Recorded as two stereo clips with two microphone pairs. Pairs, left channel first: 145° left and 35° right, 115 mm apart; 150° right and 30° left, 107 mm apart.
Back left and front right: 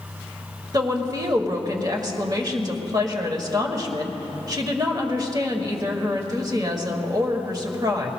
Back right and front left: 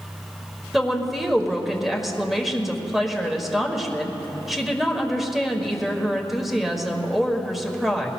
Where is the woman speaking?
55° right, 1.6 m.